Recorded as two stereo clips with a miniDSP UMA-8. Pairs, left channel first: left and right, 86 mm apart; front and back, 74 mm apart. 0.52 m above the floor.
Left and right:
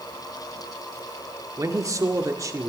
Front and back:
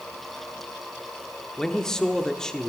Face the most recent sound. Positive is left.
turn(degrees=-80)